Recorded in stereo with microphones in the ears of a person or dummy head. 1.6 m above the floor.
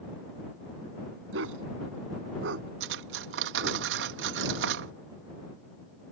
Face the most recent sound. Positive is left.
turn(degrees=-65)  # may be behind; listen again after turning